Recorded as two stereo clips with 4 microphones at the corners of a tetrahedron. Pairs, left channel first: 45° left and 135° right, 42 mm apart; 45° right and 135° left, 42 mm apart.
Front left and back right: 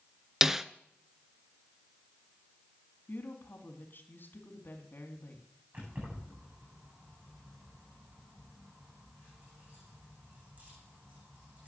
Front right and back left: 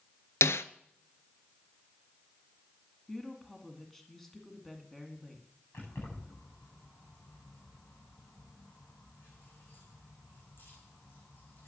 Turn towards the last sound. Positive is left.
turn(degrees=-80)